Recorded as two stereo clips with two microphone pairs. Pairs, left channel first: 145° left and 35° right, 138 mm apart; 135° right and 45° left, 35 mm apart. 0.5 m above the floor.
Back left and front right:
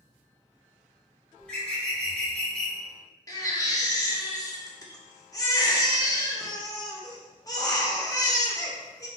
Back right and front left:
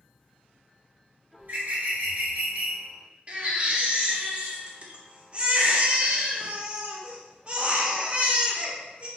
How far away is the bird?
About 1.6 m.